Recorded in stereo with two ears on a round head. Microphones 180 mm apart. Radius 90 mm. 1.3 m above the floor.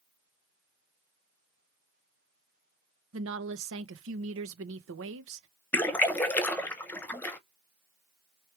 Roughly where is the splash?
Centre.